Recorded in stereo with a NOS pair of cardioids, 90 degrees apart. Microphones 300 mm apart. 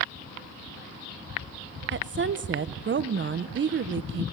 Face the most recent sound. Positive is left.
turn(degrees=-40)